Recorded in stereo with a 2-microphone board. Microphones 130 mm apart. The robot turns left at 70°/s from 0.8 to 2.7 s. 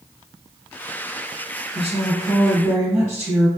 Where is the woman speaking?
80° right, 1.8 m; by 3.5 s 150° right, 1.8 m.